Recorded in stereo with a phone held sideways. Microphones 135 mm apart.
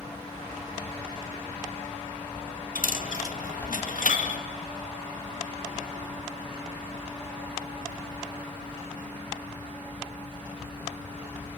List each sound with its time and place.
0.0 s a fan: 15° left (ahead or behind), 2.5 m
2.8 s a dropped coin: 75° left (ahead or behind), 1.5 m